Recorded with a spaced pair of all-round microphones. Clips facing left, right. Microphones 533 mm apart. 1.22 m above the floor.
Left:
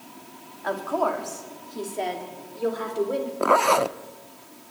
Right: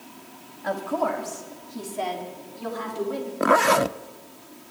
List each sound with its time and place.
0.6 s a woman speaking: 50° right (ahead or behind), 3 m; by 3.3 s 15° right (ahead or behind), 5 m
3.4 s a zipper: 45° right (ahead or behind), 0.5 m